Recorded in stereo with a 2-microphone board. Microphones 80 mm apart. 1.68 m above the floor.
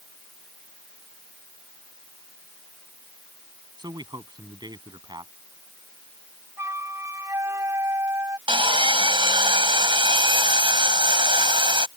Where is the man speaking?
60° right (ahead or behind).